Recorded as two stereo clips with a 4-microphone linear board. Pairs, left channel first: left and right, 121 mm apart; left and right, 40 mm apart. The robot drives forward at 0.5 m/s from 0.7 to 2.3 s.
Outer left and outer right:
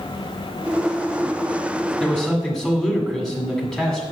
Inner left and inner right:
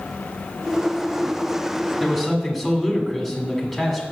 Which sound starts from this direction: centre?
A man speaking, at 2.0 s.